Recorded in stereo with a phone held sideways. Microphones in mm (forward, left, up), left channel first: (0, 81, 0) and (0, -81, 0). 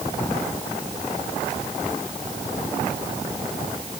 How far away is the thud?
No thud in this recording.